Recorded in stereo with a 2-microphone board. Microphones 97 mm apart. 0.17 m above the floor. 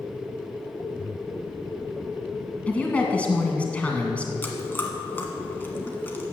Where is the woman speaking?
15° left (ahead or behind), 1.6 m.